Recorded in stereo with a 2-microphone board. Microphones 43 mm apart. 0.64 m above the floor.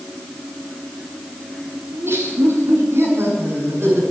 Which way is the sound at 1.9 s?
80° right.